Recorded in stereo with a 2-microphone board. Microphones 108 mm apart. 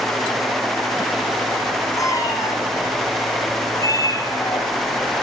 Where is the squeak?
No squeak in this recording.